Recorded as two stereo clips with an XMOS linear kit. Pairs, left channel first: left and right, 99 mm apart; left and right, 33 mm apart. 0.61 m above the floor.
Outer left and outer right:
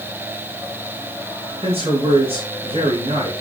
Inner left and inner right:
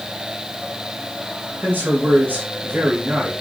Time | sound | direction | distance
1.6 | a man speaking | 80° right | 5 m